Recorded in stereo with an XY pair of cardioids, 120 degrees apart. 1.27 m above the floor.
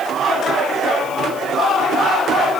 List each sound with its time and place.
Only background noise.